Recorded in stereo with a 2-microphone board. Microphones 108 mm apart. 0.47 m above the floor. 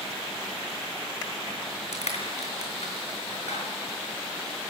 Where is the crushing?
80° left, 6 m.